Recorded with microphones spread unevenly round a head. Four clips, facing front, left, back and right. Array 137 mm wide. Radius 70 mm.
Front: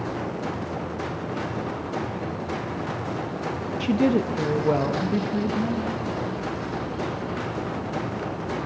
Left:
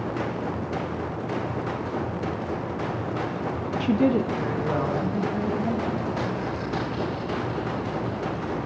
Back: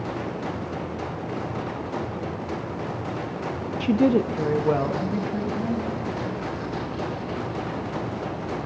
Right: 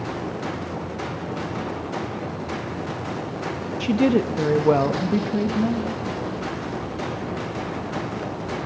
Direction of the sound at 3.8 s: 175° right.